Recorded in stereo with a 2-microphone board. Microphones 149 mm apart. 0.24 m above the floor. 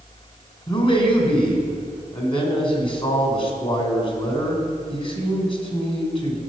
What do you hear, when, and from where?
0.7 s a man speaking: 35° left (ahead or behind), 1.7 m